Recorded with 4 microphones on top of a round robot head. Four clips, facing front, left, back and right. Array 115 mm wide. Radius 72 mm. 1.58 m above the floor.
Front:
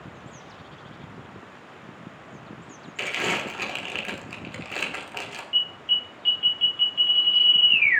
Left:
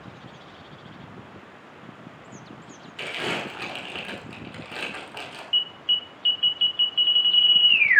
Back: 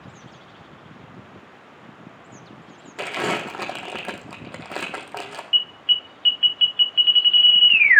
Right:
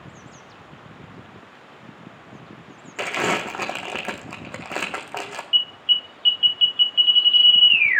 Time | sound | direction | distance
3.0 | crumpling | 130° right | 1.3 m
5.5 | an alarm | 160° left | 0.9 m